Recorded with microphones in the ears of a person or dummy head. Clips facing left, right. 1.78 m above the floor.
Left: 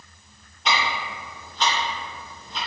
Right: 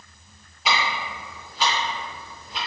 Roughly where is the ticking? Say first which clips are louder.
Even; centre.